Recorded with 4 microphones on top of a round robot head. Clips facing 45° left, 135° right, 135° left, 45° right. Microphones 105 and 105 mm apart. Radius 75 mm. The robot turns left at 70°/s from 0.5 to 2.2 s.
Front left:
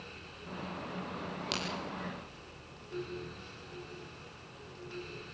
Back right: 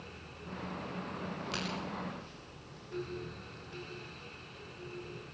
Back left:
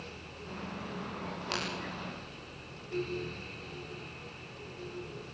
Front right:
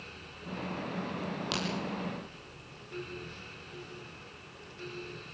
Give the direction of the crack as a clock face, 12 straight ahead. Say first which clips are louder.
Front left 2 dB, even; 11 o'clock.